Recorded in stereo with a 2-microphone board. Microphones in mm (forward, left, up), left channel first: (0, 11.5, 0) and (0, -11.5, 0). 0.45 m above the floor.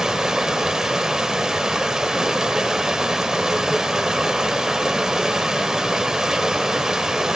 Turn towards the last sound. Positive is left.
turn(degrees=-25)  # may be behind; listen again after turning